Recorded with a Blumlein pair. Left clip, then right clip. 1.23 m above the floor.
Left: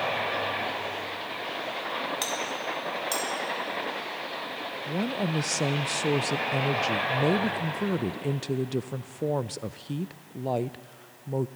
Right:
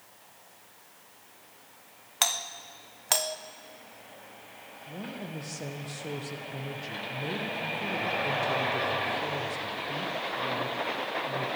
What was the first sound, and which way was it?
A doorbell, 65° right.